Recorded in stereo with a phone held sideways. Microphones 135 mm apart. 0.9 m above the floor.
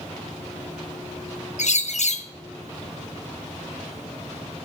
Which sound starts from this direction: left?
A bird, at 1.6 s.